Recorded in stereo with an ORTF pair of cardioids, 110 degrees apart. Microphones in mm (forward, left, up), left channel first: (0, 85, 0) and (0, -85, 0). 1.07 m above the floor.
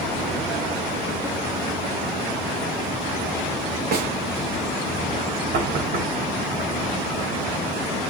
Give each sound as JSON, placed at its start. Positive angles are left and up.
{"t": 3.9, "sound": "a snare drum", "azimuth_deg": -65, "distance_m": 3.0}
{"t": 5.5, "sound": "knocking", "azimuth_deg": -65, "distance_m": 4.0}